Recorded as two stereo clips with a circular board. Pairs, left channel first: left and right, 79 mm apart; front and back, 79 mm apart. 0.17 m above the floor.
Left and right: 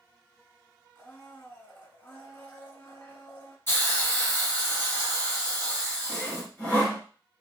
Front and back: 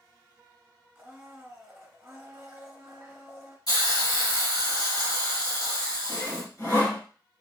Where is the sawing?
30° left, 2.0 m.